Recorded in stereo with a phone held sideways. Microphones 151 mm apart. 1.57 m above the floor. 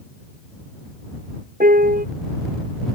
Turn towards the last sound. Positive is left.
turn(degrees=-75)  # may be behind; listen again after turning